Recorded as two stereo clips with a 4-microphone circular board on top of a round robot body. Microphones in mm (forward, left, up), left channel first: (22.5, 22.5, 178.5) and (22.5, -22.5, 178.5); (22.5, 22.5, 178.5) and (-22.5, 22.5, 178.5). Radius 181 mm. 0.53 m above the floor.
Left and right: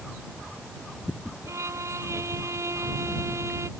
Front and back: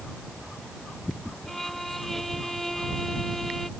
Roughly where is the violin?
Right.